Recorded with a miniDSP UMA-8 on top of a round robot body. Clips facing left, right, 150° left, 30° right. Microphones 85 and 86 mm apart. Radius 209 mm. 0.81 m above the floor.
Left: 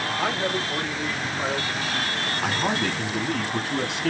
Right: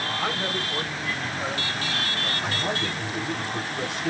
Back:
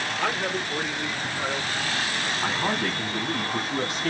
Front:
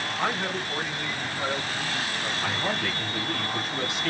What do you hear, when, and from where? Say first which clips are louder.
0.2 s a man speaking: left 4 dB, even; 55° left, 3 m; by 2.3 s 75° left, 4 m
2.4 s a man speaking: left 5 dB, back 3 dB; 95° left, 1.8 m